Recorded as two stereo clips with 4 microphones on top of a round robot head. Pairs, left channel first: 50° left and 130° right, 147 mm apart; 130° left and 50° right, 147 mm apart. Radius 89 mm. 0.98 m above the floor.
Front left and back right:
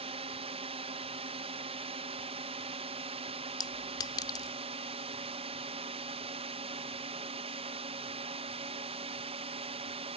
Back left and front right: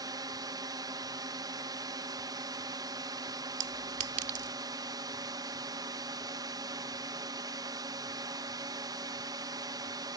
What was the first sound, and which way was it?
A drone, 105° right.